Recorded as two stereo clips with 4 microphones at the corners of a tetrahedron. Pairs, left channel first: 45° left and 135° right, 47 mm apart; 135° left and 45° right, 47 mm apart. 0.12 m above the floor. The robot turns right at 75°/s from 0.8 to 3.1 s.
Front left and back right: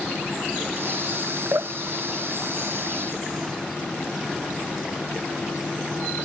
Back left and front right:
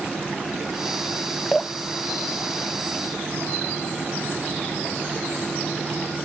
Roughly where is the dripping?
Behind right.